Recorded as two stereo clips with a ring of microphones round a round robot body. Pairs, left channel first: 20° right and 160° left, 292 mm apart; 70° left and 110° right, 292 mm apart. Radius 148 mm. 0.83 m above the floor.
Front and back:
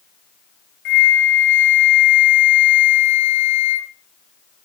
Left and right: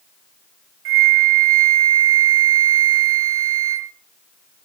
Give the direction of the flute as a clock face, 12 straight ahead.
2 o'clock.